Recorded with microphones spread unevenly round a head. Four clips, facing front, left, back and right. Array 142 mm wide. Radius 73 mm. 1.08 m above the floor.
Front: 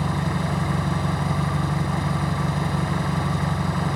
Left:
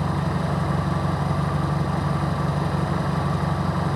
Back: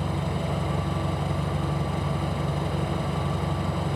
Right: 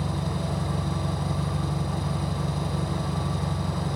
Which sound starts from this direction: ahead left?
An engine running, at 0.0 s.